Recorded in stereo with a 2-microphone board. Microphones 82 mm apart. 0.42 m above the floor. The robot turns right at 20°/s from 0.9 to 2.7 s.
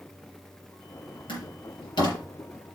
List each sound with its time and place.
1.3 s a door slam: 80° left, 6 m; by 2.2 s 65° left (ahead or behind), 6 m